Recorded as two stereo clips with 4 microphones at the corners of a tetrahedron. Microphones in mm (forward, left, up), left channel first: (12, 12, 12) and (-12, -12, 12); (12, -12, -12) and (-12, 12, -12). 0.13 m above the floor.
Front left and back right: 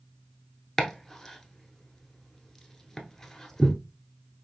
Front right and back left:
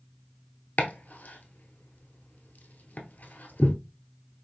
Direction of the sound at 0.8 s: 40° right.